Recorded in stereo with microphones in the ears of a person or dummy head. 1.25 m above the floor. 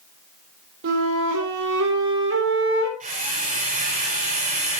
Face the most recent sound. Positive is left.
turn(degrees=-40)  # may be behind; listen again after turning